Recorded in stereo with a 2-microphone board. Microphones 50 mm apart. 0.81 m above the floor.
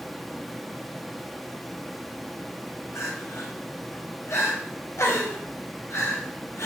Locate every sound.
0.0 s running water: centre (ahead or behind), 1.1 m
3.0 s crying: 70° left (ahead or behind), 3.5 m